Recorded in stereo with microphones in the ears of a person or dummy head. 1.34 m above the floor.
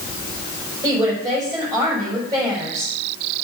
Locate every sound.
0.8 s a woman speaking: 15° right (ahead or behind), 4.5 m